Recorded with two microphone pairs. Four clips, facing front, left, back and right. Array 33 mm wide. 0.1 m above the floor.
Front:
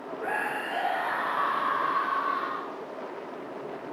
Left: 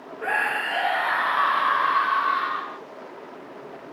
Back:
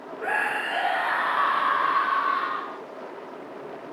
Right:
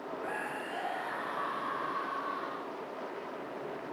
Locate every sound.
0.2 s a scream: 110° left